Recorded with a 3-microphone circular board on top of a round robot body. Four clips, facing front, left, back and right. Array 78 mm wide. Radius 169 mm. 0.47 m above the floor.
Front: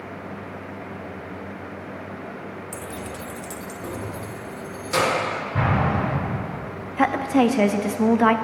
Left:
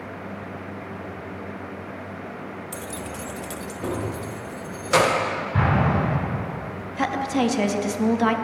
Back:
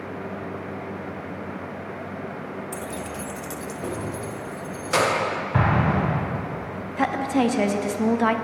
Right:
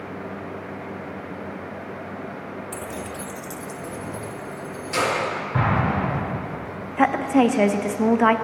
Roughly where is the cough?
No cough in this recording.